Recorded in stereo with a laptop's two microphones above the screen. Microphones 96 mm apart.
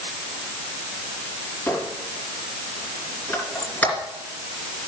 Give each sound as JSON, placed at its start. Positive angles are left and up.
{"t": 1.7, "sound": "a squeak", "side_deg": 20, "distance_m": 2.5}